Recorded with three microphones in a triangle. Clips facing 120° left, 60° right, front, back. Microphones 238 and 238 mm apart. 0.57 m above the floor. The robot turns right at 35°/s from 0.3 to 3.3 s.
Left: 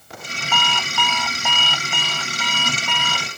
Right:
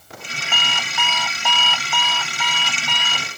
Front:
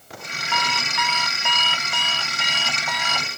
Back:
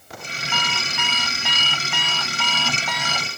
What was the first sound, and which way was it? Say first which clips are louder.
An alarm clock: left 5 dB, front 2 dB; 5° left.